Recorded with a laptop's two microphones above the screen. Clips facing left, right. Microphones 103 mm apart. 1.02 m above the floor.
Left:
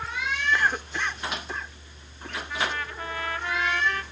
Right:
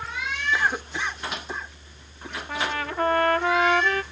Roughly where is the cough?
Centre.